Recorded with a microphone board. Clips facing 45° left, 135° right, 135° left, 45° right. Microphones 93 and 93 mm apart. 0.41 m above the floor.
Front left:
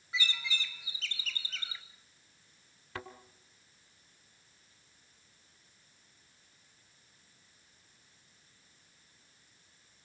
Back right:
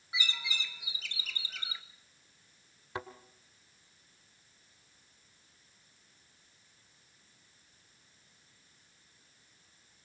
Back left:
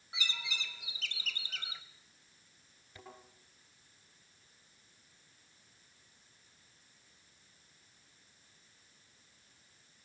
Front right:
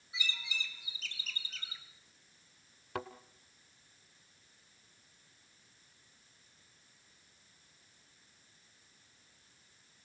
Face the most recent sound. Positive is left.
turn(degrees=-60)